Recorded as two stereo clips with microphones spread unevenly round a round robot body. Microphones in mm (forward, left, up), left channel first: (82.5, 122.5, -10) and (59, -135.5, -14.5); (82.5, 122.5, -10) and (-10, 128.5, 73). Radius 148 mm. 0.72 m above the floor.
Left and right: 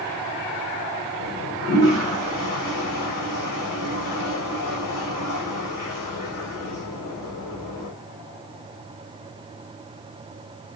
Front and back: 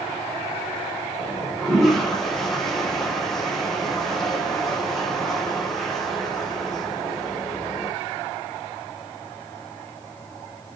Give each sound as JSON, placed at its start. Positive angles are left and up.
{"t": 1.2, "sound": "a toilet flushing", "azimuth_deg": 80, "distance_m": 2.0}